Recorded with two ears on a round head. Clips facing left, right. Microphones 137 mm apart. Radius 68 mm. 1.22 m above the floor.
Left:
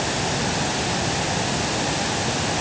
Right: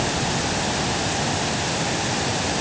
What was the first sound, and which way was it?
Only background noise.